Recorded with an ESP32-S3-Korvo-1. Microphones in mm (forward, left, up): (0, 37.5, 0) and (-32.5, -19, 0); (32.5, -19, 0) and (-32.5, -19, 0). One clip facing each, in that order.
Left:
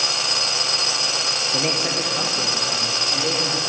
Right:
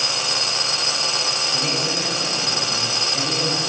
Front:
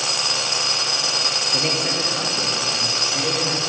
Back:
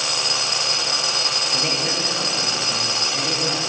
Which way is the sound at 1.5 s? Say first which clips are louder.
Left 3 dB, front 2 dB; 75° left.